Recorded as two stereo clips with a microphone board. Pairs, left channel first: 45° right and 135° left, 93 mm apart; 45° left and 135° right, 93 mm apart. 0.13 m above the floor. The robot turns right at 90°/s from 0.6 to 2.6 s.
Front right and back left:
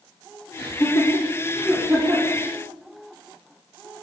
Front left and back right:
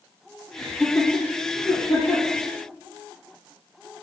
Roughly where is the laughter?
Ahead right.